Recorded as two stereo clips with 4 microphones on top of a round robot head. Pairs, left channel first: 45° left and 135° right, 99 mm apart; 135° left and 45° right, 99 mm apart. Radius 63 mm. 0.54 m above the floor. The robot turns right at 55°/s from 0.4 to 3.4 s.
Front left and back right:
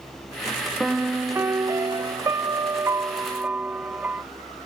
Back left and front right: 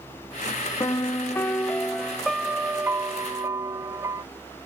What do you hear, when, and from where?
0.8 s a piano: 150° left; by 4.2 s 70° right